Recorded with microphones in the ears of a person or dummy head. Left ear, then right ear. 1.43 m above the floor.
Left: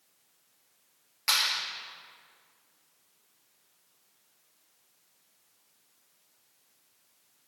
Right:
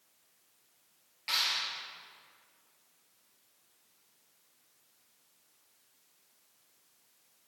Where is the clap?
45° left (ahead or behind), 1.9 m.